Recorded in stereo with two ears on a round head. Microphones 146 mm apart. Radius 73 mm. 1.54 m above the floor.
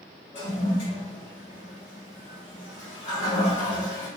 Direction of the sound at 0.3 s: 45° left (ahead or behind).